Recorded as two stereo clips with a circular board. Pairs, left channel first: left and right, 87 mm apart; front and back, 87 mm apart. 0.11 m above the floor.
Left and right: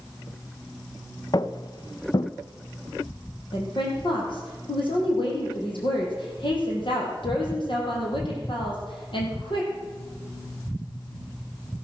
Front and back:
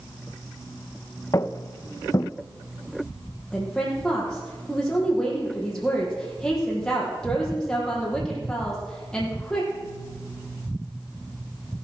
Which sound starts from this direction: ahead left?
Footsteps, at 1.3 s.